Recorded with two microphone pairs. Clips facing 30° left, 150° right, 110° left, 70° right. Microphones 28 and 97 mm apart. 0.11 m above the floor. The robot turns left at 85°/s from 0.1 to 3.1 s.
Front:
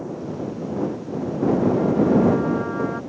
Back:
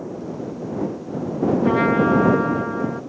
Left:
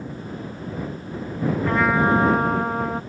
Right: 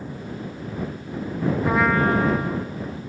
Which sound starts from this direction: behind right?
A trumpet, at 1.6 s.